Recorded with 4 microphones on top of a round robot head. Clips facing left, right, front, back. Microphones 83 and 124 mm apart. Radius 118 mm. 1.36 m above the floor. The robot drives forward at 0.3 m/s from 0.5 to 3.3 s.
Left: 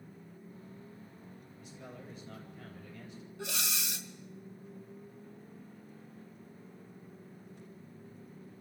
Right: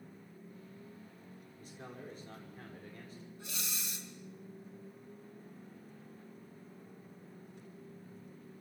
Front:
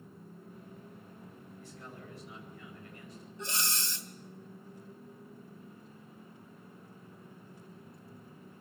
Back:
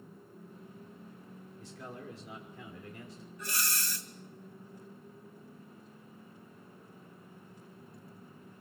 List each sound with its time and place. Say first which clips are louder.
1.6 s a man speaking: right 1 dB, back 4 dB; 150° right, 5.5 m
3.4 s breathing: left 8 dB, front 1 dB; 70° left, 2.5 m